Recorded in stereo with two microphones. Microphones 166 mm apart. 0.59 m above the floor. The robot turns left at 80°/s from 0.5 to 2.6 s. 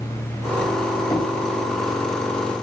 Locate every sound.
1.1 s knocking: 20° left (ahead or behind), 3 m; by 1.3 s 5° left (ahead or behind), 3 m